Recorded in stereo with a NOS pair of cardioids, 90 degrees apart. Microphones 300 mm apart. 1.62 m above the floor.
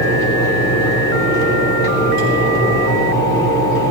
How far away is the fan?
About 4 m.